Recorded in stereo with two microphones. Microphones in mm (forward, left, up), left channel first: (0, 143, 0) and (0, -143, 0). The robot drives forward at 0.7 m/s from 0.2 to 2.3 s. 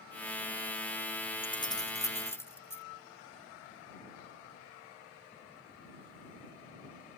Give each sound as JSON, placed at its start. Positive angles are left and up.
{"t": 1.4, "sound": "keys jangling", "side_deg": 20}